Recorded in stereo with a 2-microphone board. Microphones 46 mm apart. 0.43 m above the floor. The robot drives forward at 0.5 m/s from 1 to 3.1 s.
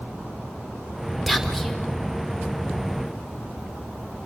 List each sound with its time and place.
1.3 s whispering: centre (ahead or behind), 1.2 m